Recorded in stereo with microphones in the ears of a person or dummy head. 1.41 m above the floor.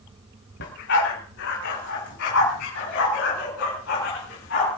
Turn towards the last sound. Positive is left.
turn(degrees=60)  # may be behind; listen again after turning